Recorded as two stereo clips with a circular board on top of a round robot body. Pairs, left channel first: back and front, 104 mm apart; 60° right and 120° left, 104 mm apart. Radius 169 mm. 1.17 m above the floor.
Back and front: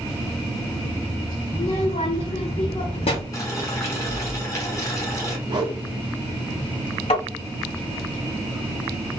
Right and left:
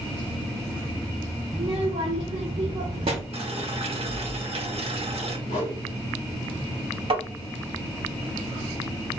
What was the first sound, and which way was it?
A child speaking, 155° left.